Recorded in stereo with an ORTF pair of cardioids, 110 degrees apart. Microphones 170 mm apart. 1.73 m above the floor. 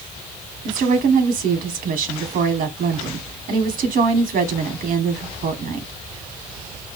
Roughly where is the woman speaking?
Ahead right.